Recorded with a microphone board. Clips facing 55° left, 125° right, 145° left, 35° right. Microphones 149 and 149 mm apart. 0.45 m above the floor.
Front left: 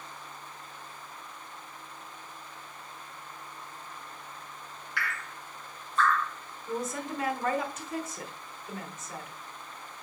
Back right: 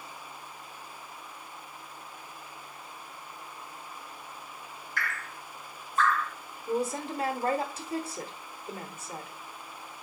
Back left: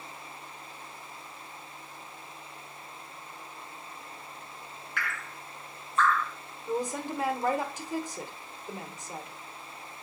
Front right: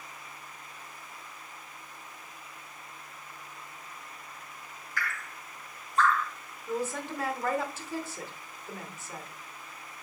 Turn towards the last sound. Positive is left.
turn(degrees=-150)